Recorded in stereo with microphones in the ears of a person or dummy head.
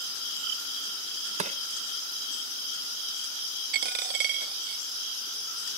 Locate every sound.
1.4 s crushing: 35° right (ahead or behind)
3.7 s a dropped coin: 40° right (ahead or behind)